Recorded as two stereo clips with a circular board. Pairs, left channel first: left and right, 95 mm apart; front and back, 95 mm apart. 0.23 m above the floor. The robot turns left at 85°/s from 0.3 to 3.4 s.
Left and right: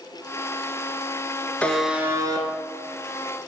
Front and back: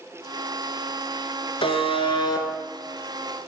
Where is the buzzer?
15° left, 1.3 m; by 2.5 s 60° right, 1.3 m.